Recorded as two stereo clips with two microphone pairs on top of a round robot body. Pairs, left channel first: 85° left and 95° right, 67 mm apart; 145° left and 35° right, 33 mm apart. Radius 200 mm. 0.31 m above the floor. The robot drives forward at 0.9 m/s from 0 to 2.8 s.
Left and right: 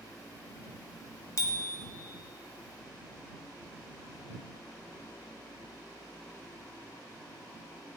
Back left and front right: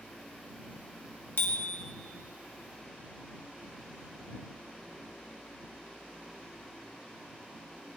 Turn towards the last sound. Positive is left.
turn(degrees=135)